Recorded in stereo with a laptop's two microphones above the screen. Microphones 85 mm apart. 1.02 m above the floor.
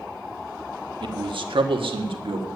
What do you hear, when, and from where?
1.0 s a man speaking: 65° right (ahead or behind), 1.2 m; by 2.5 s 85° right, 1.9 m